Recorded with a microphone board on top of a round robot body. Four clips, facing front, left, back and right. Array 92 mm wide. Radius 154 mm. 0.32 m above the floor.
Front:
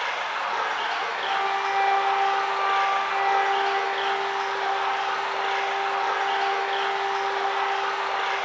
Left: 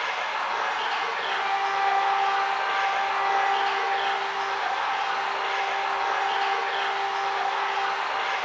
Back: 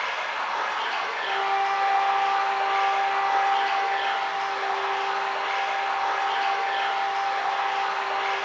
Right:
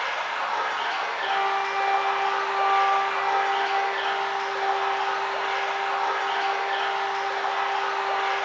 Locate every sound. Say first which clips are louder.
0.0 s running water: even, front 1 dB; 10° right, 1.8 m
1.2 s a flute: right 4 dB, back 1 dB; 25° right, 0.6 m